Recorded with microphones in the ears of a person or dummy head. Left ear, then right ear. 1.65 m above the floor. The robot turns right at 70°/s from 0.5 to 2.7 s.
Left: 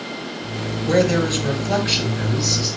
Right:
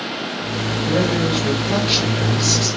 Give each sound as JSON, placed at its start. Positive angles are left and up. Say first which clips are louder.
{"t": 0.8, "sound": "a man speaking", "louder": "left 3 dB", "azimuth_deg": 105, "distance_m": 9.0}